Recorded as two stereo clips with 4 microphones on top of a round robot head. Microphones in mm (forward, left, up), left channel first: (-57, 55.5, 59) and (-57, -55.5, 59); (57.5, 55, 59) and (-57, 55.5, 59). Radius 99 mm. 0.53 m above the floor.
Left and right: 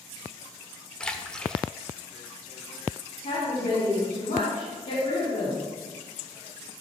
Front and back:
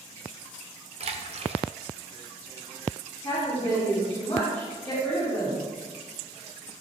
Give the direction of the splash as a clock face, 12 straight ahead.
6 o'clock.